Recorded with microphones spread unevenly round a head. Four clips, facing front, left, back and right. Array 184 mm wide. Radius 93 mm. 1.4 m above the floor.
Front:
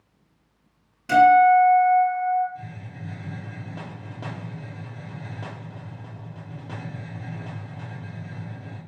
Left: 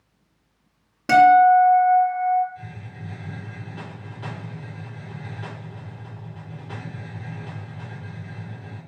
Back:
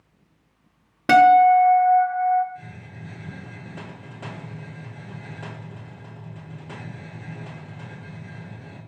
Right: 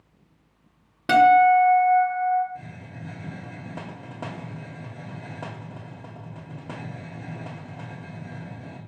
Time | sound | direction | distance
1.1 | a guitar | straight behind | 1.0 m
2.5 | a hiss | 70° right | 1.7 m